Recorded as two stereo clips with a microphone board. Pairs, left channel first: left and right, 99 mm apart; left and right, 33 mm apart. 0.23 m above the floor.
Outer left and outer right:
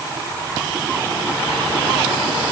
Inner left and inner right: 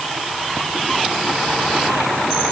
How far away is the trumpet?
I don't hear a trumpet.